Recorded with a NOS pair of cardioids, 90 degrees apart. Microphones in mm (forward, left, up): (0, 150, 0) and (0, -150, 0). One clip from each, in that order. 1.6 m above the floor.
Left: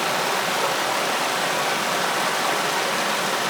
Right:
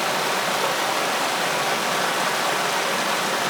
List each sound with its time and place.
0.0 s running water: straight ahead, 1.5 m